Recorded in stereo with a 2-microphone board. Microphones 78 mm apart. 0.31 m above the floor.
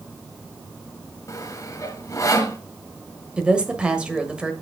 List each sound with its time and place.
1.3 s sawing: 45° left (ahead or behind), 1.1 m
3.4 s a woman speaking: 10° right (ahead or behind), 1.1 m